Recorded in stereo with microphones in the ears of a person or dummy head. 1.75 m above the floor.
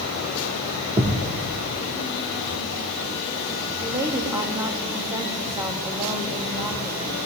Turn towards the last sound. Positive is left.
turn(degrees=-20)  # may be behind; listen again after turning